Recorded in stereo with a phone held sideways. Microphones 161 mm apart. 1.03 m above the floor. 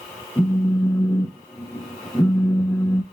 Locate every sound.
0.4 s a phone buzzing: 15° left (ahead or behind), 0.7 m